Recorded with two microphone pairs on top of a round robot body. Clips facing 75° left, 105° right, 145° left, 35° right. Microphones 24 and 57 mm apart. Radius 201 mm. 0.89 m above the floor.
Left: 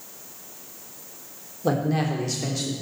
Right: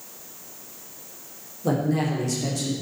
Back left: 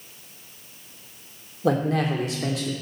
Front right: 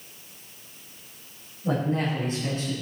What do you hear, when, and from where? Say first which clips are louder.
1.6 s a man speaking: even, back left 4 dB; 140° left, 3 m